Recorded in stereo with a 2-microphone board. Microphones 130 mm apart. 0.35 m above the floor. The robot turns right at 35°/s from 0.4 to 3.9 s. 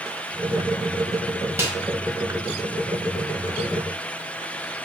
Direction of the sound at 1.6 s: 20° right (ahead or behind).